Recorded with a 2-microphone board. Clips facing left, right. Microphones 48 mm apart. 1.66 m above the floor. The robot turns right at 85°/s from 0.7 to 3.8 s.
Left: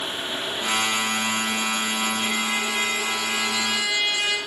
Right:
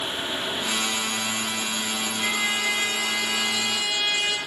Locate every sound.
2.2 s a trumpet: 130° right, 3.5 m; by 4.4 s 5° left, 3.5 m